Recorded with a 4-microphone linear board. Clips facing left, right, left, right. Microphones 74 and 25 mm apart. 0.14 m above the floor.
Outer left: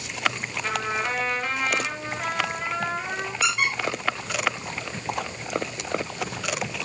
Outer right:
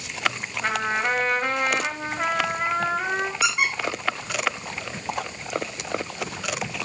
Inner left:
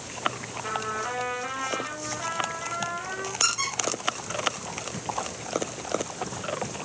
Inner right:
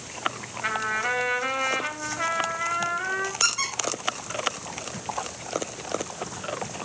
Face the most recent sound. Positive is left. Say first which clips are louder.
# outer left 3 dB, inner left 2 dB
turn(degrees=-10)  # may be behind; listen again after turning